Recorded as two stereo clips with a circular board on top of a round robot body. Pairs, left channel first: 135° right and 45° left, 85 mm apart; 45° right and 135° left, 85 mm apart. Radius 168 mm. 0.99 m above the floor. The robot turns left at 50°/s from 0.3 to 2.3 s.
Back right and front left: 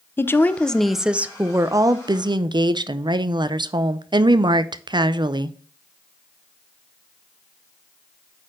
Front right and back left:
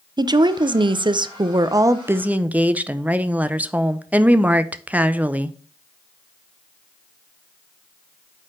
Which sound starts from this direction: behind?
A woman speaking, at 0.2 s.